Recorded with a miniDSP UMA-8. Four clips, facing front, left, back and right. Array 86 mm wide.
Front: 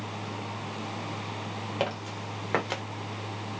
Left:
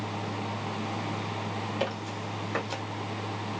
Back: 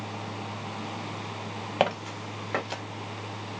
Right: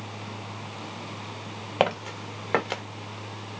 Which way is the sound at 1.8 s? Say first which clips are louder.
Right 6 dB, back 6 dB; 115° right.